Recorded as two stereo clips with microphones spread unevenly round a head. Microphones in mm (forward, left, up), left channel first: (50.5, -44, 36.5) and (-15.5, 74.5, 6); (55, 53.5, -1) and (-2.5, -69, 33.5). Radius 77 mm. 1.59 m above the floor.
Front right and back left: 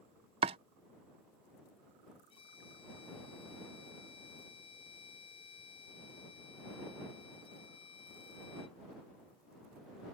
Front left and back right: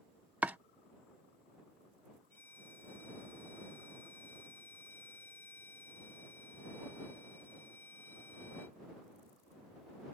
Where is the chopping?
Straight behind.